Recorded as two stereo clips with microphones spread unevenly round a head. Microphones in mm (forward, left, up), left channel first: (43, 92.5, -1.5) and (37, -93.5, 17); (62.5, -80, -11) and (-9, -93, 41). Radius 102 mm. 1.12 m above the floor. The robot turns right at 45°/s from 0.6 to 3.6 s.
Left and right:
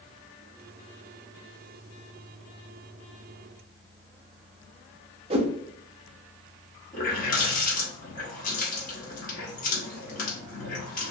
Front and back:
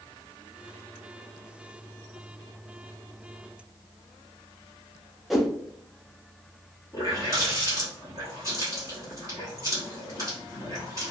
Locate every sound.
5.3 s a whoosh: 135° right, 0.6 m
6.9 s a running tap: 145° left, 1.0 m